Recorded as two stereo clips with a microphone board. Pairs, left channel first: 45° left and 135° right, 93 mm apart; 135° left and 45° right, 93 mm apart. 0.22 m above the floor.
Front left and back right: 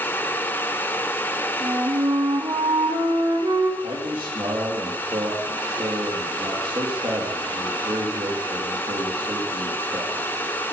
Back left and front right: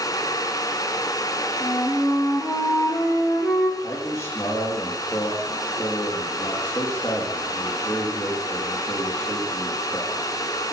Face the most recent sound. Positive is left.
turn(degrees=-165)